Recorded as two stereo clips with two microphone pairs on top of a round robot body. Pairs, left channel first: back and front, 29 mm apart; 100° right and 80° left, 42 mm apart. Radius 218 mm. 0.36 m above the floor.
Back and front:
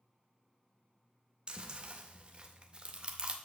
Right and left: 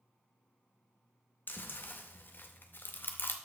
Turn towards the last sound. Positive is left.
turn(degrees=-60)